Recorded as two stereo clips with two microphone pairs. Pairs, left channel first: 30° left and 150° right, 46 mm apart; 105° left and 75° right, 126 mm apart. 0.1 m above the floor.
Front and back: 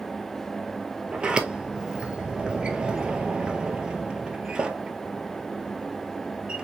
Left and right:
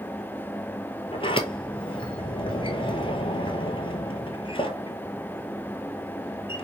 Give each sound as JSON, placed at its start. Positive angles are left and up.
{"t": 1.1, "sound": "a sliding door", "azimuth_deg": 145, "distance_m": 0.7}